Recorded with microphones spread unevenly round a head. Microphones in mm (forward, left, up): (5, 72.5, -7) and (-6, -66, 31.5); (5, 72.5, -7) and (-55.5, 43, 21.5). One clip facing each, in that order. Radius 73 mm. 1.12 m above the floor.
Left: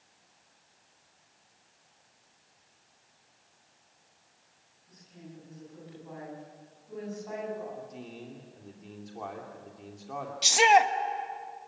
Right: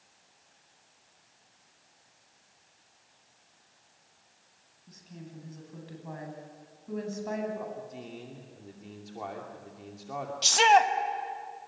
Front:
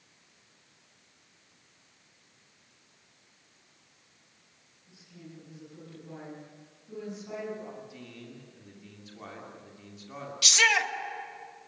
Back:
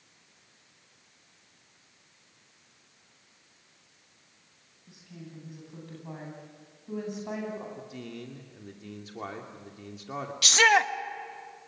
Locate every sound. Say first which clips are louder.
4.9 s a woman speaking: right 2 dB, back 3 dB; 120° right, 9 m
7.8 s a man speaking: right 1 dB, back 5 dB; straight behind, 2.5 m
10.4 s a shout: even, back 4 dB; 160° left, 1.5 m